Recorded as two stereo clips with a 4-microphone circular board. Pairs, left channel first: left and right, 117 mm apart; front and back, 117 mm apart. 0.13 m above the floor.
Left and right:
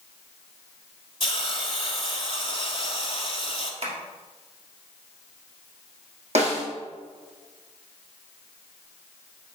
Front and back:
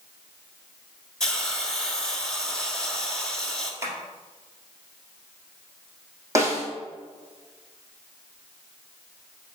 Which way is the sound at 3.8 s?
115° right.